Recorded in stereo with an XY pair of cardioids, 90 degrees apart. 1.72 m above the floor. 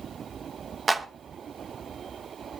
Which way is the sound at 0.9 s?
30° right.